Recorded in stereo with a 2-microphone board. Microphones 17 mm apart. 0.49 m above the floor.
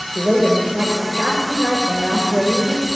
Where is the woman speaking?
65° right (ahead or behind), 8 m.